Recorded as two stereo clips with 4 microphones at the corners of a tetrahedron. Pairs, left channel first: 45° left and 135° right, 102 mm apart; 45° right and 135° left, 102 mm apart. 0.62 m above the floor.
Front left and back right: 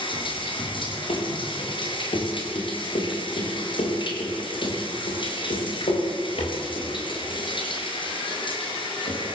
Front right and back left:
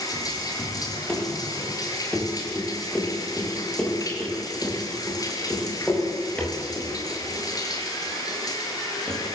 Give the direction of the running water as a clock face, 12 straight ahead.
12 o'clock.